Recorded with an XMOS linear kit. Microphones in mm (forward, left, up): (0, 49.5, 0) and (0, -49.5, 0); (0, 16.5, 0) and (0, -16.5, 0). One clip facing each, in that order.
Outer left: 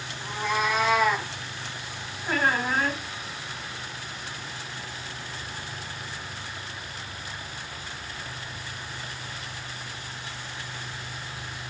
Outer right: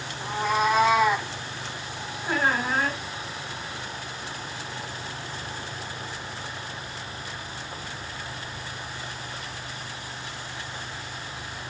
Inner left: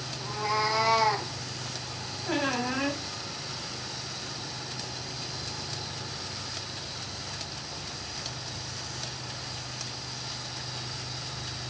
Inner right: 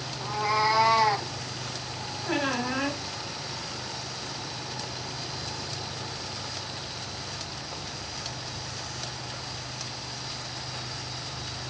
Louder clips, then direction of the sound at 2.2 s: Even, inner right 1 dB; 5° right (ahead or behind).